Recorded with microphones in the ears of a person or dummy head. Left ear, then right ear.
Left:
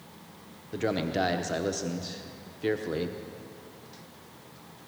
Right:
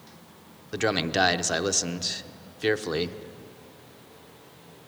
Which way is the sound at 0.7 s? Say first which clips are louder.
Right 4 dB; 35° right (ahead or behind).